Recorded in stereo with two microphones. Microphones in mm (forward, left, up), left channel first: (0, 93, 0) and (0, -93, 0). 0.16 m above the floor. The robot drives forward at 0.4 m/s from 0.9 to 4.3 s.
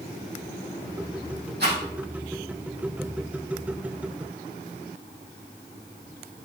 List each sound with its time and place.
1.6 s a rattle: 65° right (ahead or behind), 4.5 m